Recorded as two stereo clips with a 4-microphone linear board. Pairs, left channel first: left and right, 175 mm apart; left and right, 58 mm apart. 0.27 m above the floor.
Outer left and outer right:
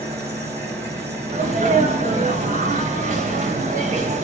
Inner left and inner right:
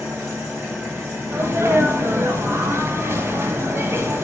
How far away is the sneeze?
About 1.4 m.